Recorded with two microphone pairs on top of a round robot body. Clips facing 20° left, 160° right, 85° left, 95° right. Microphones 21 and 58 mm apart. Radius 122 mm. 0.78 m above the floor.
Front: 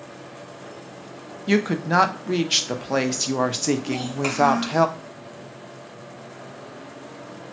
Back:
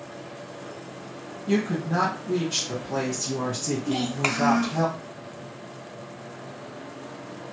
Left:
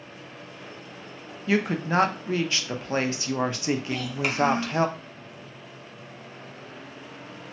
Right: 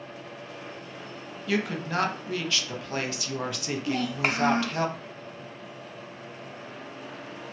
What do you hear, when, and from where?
1.5 s a woman speaking: 20° left, 0.6 m
3.9 s a child speaking: 110° right, 0.8 m